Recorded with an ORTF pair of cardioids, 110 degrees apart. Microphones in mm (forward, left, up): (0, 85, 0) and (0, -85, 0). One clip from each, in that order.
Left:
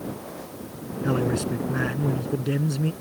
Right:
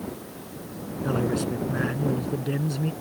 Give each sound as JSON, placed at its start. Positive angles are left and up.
{"t": 1.0, "sound": "a man speaking", "azimuth_deg": 15}